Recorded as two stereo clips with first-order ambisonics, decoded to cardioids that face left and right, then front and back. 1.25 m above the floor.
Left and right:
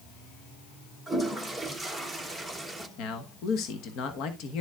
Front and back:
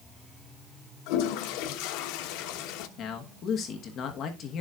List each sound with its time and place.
1.1 s a toilet flushing: 5° left, 1.1 m
3.0 s a man speaking: 55° left, 1.3 m